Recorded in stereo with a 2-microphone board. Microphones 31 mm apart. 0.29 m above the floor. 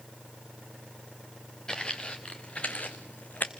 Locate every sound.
1.7 s footsteps: 25° left (ahead or behind), 1.4 m; by 3.5 s 70° left (ahead or behind), 1.1 m